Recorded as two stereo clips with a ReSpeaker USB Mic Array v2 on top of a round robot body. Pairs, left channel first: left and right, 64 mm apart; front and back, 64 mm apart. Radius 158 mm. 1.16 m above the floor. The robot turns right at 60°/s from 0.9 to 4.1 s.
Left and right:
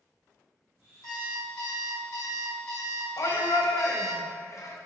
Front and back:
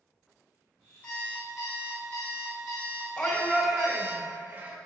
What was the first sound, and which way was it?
An alarm clock, 65° left.